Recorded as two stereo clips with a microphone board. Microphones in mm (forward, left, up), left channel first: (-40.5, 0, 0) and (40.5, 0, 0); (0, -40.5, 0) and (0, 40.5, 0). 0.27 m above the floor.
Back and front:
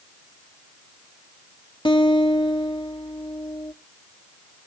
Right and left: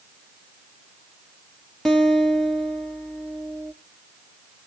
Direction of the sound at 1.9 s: 175° right.